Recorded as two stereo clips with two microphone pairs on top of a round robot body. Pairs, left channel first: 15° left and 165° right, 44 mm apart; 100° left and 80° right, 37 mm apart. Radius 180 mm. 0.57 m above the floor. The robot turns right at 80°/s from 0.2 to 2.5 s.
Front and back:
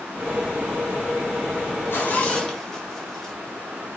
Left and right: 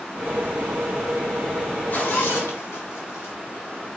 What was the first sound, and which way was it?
A zipper, 50° left.